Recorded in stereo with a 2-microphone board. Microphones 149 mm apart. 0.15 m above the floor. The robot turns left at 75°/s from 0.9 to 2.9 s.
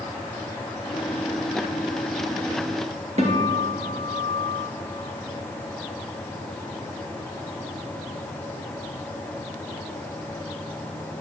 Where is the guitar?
50° right (ahead or behind), 2.5 m.